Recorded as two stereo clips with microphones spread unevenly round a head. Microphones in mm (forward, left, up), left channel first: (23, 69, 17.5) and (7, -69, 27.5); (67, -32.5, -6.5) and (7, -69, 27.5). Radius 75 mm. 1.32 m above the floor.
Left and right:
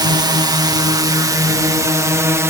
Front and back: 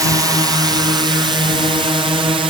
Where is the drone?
110° right; by 2.5 s 165° right.